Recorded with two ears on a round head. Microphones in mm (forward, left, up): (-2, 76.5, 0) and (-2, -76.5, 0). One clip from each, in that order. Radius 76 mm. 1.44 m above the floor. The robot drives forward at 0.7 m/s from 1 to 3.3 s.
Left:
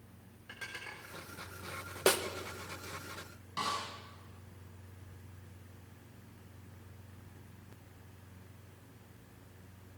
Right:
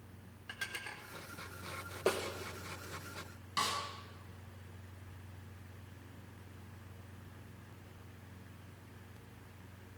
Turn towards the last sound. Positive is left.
turn(degrees=-40)  # may be behind; listen again after turning